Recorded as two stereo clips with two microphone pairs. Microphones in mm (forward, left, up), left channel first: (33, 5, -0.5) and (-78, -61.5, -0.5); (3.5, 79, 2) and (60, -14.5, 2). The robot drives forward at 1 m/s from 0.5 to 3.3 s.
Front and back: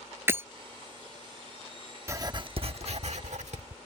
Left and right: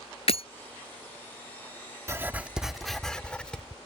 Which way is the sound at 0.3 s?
140° left.